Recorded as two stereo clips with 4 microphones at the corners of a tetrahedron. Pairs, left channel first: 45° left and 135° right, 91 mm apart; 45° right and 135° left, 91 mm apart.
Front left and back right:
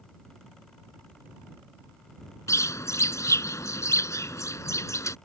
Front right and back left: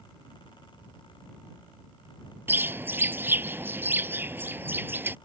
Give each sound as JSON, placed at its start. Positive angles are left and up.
{"t": 2.5, "sound": "a bird", "azimuth_deg": 80}